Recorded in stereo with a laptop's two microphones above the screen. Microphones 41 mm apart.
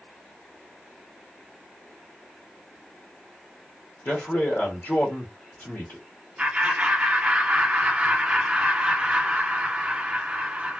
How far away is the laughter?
About 1.2 m.